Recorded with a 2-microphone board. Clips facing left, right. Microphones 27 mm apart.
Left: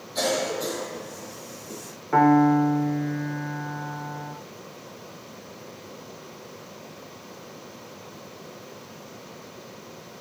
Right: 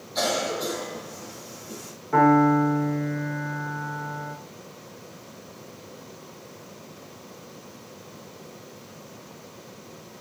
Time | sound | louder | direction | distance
0.1 | a cough | even | 15° right (ahead or behind) | 1.0 m
2.1 | a piano | even | 20° left (ahead or behind) | 0.9 m